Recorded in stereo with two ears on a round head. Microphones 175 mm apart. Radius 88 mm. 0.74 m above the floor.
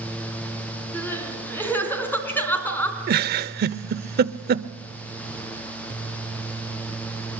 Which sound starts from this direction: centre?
Crying, at 0.9 s.